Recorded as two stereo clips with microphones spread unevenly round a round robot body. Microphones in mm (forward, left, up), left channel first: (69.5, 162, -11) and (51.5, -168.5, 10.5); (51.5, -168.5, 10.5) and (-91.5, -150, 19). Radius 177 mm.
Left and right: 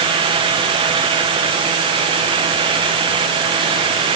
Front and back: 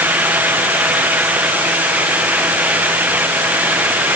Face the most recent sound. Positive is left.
No sound to turn to.